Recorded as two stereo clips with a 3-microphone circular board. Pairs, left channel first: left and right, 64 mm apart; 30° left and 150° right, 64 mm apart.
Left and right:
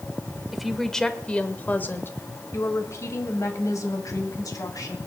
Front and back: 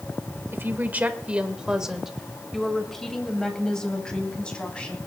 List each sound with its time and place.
0.5 s a woman speaking: 175° right, 1.1 m; by 5.0 s 100° left, 2.5 m